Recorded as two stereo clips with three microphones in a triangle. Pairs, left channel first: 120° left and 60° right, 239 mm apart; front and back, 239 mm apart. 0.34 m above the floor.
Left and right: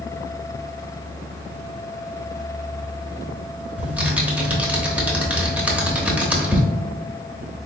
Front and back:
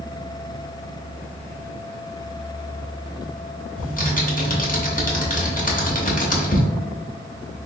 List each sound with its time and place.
3.8 s typing on a keyboard: 20° left, 0.8 m